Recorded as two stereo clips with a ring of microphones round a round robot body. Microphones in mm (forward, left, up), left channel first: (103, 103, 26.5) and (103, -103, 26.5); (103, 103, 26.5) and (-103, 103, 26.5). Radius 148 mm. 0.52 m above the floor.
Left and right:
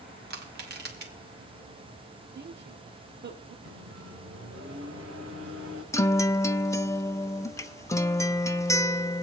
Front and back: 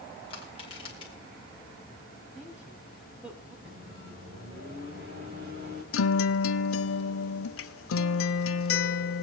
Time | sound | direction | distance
0.3 | crushing | 65° right | 2 m
2.4 | a woman speaking | 95° right | 1.6 m
3.6 | a microwave | 130° right | 3 m
5.9 | a guitar | 10° left | 0.8 m